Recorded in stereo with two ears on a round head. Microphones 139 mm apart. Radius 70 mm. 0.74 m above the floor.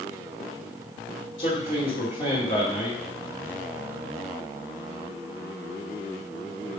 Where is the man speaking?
35° left (ahead or behind), 2 m.